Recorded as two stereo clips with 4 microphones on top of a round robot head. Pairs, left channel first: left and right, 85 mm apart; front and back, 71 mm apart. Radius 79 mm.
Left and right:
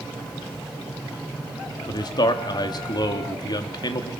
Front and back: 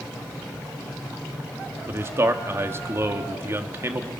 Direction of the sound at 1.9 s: 125° left.